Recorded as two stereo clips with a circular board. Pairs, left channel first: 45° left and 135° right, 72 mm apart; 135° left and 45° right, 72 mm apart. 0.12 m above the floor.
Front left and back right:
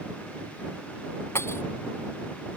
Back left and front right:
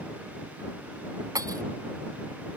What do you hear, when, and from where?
1.4 s breaking glass: 10° right